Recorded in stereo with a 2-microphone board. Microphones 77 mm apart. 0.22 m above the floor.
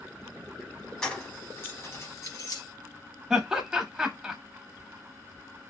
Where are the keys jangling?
10° left (ahead or behind), 0.9 m; by 2.6 s 55° left (ahead or behind), 1.1 m.